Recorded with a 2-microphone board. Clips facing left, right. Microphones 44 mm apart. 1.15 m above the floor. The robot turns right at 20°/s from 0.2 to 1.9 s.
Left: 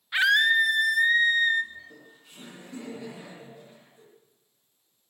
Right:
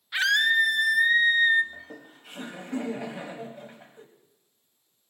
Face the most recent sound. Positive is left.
turn(degrees=-60)  # may be behind; listen again after turning